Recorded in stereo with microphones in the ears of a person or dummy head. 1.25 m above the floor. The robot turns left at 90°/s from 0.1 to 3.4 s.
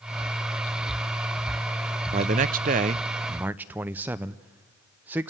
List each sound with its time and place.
2.1 s a man speaking: 50° right, 0.7 m; by 5.3 s 165° right, 0.7 m